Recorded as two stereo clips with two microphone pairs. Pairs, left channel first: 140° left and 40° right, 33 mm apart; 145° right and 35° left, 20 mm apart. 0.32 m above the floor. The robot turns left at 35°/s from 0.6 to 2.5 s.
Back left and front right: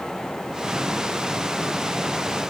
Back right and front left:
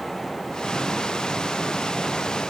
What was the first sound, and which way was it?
Only background noise.